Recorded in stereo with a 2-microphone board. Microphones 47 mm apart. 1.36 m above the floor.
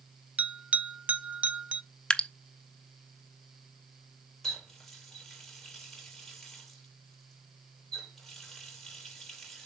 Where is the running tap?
5° left (ahead or behind), 4 m.